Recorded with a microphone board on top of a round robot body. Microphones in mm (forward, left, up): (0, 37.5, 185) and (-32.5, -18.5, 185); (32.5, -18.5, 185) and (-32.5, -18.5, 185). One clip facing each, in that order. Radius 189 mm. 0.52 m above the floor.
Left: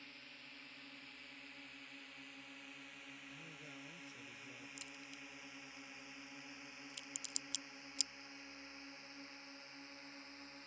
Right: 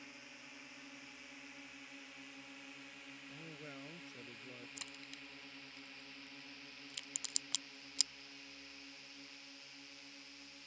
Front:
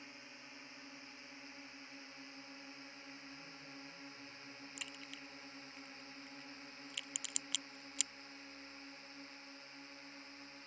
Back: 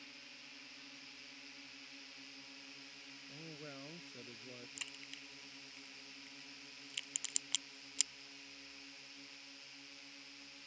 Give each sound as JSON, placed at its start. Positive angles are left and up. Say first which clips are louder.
{"t": 0.0, "sound": "a drone", "louder": "right 2 dB, front 3 dB", "azimuth_deg": -50}
{"t": 3.3, "sound": "a man speaking", "louder": "right 3 dB, back 2 dB", "azimuth_deg": 180}
{"t": 4.8, "sound": "a crack", "louder": "right 1 dB, front 2 dB", "azimuth_deg": -90}